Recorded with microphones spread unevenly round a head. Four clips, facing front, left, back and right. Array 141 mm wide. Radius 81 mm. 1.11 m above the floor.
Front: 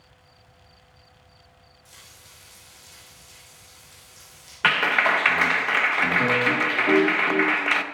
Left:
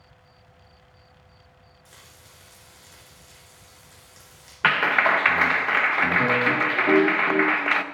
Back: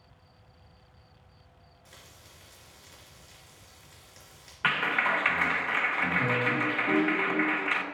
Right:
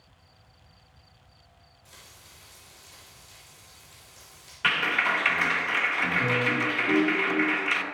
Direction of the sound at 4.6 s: 45° left.